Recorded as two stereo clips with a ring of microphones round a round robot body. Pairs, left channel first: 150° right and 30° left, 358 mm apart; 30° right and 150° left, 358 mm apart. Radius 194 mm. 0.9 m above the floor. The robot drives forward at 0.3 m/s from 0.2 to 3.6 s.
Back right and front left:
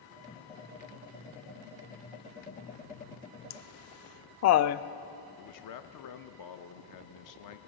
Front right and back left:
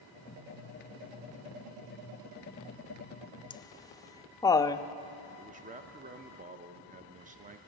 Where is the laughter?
105° right, 0.5 m; by 4.8 s 110° right, 0.5 m.